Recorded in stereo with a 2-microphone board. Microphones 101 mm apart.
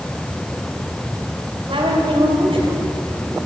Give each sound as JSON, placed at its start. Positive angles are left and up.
{"t": 1.7, "sound": "a woman speaking", "side_deg": -60, "distance_m": 3.0}